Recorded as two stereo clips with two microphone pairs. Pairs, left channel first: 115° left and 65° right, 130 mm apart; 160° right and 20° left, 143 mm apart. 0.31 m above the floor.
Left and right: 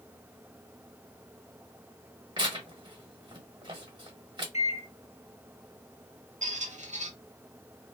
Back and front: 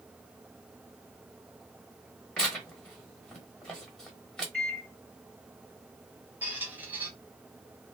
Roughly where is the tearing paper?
Right.